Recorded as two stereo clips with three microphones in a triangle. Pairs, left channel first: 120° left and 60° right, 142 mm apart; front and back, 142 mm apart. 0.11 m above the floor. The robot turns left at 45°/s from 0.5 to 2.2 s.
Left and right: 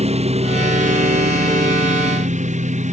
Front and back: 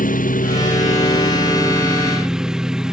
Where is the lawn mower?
20° right; by 2.9 s 95° right.